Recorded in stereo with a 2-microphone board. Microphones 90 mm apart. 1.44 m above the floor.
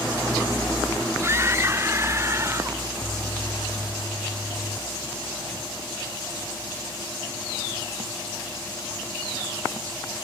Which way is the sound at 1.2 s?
30° right (ahead or behind).